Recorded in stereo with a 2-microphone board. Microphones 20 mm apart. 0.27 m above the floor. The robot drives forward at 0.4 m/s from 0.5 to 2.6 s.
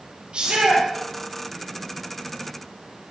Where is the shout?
45° right (ahead or behind), 5.5 m.